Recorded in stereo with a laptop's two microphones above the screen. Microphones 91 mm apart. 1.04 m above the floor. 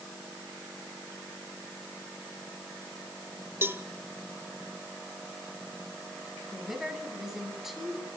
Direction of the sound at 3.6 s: 30° right (ahead or behind).